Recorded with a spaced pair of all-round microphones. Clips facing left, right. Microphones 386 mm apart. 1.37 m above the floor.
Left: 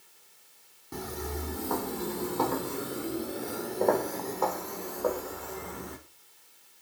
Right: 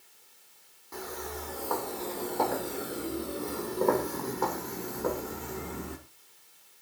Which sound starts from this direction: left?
Footsteps, at 0.9 s.